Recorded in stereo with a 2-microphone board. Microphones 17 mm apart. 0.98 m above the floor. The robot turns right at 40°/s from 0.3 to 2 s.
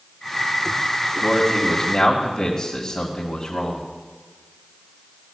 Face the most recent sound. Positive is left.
turn(degrees=35)